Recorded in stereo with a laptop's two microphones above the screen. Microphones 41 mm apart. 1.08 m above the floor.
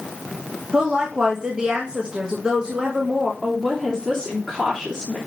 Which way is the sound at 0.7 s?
15° right (ahead or behind).